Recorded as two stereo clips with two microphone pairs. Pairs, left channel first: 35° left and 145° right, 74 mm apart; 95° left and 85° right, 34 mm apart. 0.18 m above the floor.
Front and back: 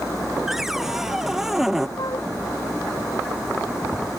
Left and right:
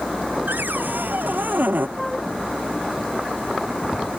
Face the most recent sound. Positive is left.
turn(degrees=10)